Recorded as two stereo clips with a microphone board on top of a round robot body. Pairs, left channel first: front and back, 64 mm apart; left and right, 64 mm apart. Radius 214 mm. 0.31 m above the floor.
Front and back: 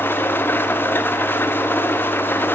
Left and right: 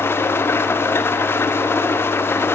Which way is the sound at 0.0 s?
45° left.